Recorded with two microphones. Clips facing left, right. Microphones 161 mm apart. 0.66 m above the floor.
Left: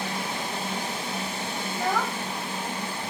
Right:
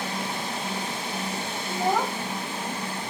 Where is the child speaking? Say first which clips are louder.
Right 3 dB; 20° right (ahead or behind).